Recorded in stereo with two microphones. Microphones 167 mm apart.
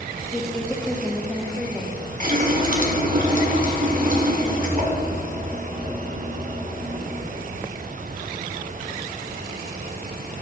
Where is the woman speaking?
5° left (ahead or behind), 1.2 m.